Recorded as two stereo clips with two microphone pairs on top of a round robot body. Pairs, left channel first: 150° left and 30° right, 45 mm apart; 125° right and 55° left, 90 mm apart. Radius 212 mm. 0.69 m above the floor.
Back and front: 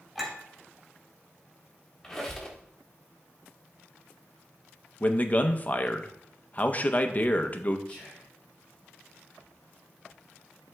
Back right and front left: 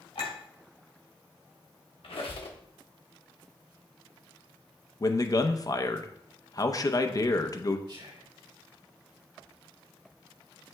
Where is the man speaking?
165° right, 0.9 m.